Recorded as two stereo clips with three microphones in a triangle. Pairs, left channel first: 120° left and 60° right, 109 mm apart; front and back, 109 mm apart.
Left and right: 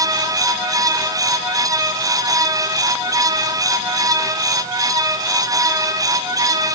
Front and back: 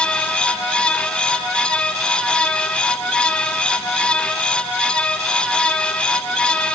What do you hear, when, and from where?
Only background noise.